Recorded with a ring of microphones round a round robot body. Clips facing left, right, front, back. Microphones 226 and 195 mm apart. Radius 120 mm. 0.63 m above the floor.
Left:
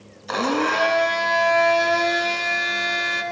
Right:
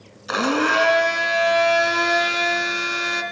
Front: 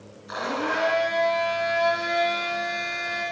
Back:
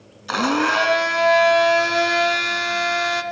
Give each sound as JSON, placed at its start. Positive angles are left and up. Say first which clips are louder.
{"t": 0.3, "sound": "a blender", "louder": "right 1 dB, back 8 dB", "azimuth_deg": -170, "distance_m": 3.0}